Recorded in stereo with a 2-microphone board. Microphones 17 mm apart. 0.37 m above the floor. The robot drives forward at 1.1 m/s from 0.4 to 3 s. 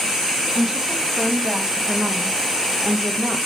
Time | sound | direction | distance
0.6 | a woman speaking | 25° right (ahead or behind) | 3 m